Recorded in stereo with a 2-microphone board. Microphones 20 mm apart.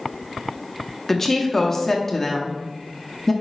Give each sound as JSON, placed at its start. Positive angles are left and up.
{"t": 1.1, "sound": "a woman speaking", "side_deg": 20, "distance_m": 0.9}